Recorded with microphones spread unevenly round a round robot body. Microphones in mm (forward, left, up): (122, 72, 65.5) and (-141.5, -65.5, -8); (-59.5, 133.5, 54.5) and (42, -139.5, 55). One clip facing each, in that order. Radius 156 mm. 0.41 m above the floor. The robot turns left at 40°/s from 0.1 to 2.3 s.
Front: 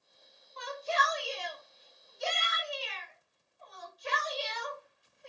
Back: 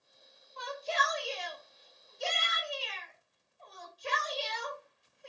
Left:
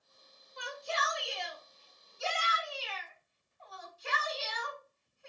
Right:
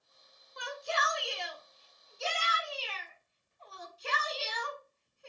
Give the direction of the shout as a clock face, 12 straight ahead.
2 o'clock.